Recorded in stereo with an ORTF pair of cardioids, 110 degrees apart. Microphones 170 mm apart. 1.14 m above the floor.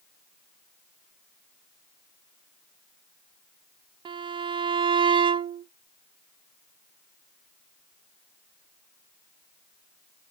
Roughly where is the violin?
Ahead right.